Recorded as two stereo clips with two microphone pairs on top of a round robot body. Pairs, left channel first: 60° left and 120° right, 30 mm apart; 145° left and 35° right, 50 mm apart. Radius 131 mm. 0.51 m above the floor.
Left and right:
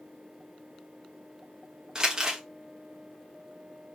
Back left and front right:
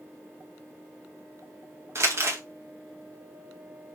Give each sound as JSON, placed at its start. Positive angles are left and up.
{"t": 1.9, "sound": "crumpling", "azimuth_deg": -55, "distance_m": 1.6}